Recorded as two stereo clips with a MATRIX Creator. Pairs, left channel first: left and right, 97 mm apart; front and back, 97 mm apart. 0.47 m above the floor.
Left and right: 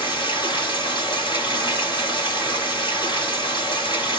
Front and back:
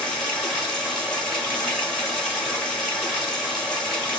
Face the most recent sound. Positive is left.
turn(degrees=85)